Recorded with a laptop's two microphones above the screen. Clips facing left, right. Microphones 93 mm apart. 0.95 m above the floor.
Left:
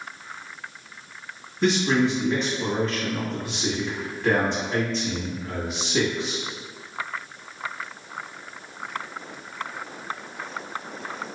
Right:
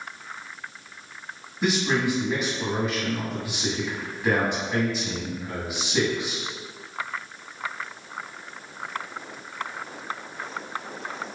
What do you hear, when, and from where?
1.6 s a man speaking: 15° right (ahead or behind), 1.7 m